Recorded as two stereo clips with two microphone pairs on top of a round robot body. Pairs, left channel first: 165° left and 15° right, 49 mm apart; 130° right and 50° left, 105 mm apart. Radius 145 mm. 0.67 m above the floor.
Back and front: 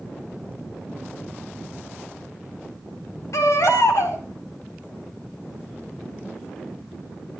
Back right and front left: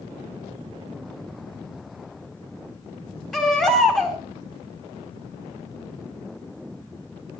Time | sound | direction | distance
3.3 | a baby crying | 145° left | 3 m